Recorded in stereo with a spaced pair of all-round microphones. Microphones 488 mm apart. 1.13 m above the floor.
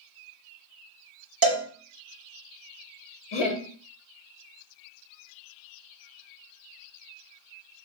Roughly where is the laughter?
Left.